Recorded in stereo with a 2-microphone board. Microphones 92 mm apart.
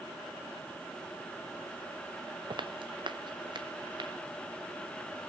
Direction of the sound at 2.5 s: 60° right (ahead or behind).